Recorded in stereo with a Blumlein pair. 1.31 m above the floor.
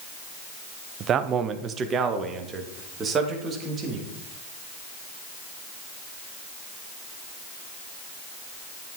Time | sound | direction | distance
1.0 | a man speaking | 30° right | 0.6 m